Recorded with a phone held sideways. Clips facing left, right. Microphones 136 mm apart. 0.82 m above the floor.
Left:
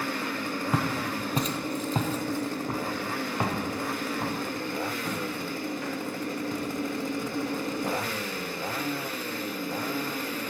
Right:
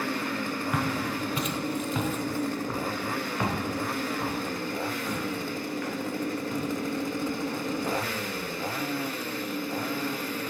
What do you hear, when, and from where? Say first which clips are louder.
0.7 s footsteps: left 1 dB; 25° left (ahead or behind), 1.1 m; by 8.5 s 15° left (ahead or behind), 6.5 m